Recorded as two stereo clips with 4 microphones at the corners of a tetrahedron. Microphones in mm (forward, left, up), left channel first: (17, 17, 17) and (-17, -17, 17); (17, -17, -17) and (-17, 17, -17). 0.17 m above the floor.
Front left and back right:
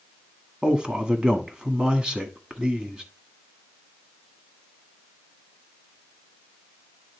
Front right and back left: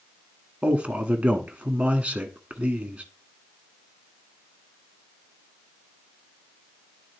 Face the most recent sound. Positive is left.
turn(degrees=170)